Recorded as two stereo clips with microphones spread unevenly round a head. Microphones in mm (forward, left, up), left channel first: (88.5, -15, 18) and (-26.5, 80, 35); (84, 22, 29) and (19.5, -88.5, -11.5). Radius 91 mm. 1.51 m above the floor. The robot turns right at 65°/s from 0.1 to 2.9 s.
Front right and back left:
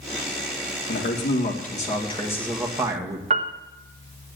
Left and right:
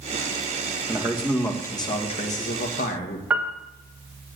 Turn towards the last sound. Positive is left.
turn(degrees=145)